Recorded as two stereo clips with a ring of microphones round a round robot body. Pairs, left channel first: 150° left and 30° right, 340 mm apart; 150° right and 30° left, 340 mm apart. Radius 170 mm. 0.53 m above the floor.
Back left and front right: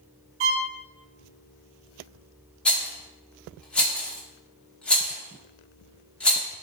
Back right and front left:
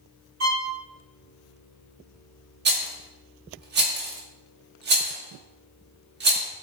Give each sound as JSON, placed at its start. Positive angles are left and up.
{"t": 0.4, "sound": "a violin", "azimuth_deg": -20, "distance_m": 0.6}
{"t": 2.6, "sound": "a rattle", "azimuth_deg": 65, "distance_m": 0.7}